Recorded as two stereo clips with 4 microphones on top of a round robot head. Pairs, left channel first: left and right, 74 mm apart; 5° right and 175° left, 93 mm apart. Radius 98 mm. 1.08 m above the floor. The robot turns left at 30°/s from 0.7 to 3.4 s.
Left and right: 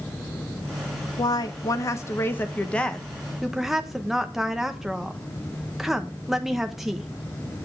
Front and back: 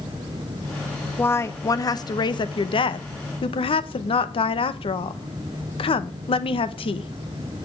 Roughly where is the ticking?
I don't hear ticking.